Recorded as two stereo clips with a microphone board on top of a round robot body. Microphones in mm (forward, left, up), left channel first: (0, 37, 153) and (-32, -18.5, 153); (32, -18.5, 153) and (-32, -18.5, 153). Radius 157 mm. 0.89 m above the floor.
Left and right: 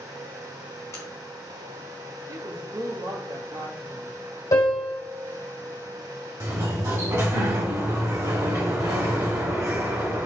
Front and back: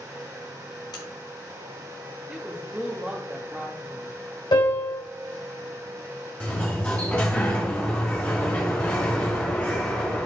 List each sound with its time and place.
0.9 s a crack: 10° left, 1.4 m
2.3 s a woman speaking: 110° right, 1.7 m
4.5 s a piano: 25° left, 1.7 m
6.4 s a sliding door: 65° right, 2.5 m